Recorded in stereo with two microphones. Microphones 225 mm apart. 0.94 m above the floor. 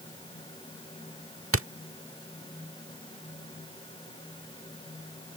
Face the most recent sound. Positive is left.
turn(degrees=-70)  # may be behind; listen again after turning